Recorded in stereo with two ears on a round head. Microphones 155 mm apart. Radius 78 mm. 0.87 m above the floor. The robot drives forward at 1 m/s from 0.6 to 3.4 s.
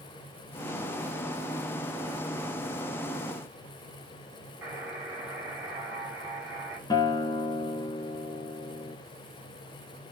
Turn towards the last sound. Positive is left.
turn(degrees=25)  # may be behind; listen again after turning